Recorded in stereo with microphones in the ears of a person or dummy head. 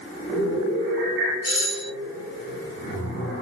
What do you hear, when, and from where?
1.4 s a doorbell: 50° left (ahead or behind), 2.5 m